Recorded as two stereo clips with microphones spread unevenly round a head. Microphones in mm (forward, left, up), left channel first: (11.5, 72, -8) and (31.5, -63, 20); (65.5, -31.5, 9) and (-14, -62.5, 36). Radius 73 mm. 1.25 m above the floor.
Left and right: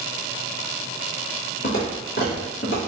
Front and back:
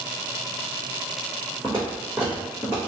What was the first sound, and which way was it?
Footsteps, 120° left.